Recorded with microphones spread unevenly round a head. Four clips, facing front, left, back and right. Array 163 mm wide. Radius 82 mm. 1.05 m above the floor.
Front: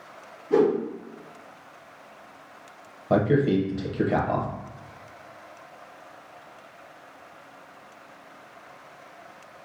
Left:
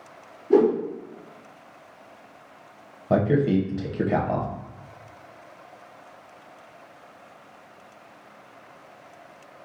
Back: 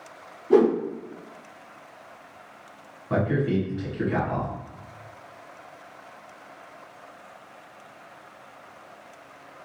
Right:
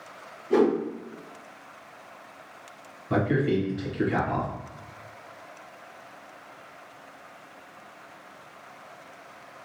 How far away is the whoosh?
About 1.8 m.